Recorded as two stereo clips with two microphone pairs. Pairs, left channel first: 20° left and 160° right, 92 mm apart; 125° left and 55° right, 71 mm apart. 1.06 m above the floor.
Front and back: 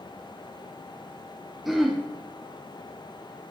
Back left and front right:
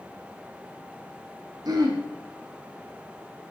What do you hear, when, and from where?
1.6 s throat clearing: 70° right, 2.5 m